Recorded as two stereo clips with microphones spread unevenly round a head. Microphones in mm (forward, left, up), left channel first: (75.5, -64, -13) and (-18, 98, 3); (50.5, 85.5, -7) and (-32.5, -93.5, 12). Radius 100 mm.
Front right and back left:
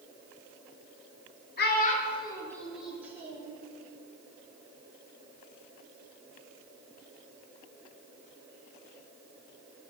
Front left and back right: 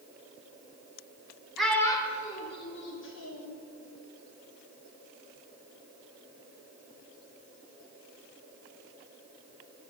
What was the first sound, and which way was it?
A child speaking, 30° right.